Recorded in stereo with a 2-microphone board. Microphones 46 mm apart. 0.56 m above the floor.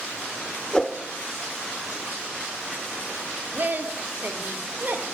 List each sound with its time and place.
0.7 s a whoosh: 15° left (ahead or behind), 0.9 m
3.5 s a woman speaking: 45° right (ahead or behind), 1.5 m